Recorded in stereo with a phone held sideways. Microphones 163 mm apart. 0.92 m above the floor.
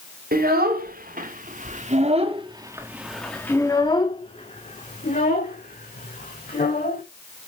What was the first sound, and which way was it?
A child speaking, 70° right (ahead or behind).